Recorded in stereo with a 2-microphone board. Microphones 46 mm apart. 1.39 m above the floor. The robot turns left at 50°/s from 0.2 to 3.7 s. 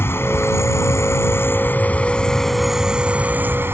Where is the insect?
120° left; by 3.8 s 55° right.